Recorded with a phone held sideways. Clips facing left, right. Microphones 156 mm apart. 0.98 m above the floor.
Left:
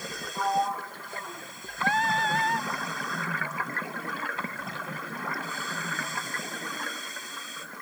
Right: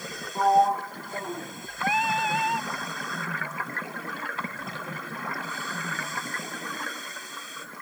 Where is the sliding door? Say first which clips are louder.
Right 7 dB; 40° right (ahead or behind).